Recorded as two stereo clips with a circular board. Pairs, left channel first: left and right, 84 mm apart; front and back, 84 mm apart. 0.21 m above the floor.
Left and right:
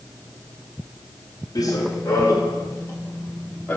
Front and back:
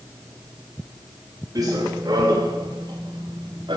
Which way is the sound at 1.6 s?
135° left.